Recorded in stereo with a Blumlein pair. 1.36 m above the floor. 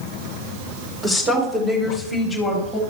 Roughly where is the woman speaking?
Ahead.